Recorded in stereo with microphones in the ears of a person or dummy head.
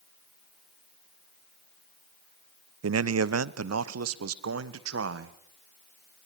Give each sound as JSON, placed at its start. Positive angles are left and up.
{"t": 2.8, "sound": "a man speaking", "side_deg": -80, "distance_m": 0.7}